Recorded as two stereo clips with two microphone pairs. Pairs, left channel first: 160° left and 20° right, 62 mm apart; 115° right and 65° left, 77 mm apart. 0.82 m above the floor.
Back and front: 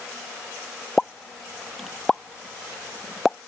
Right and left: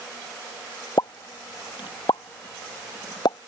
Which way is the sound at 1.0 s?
115° right.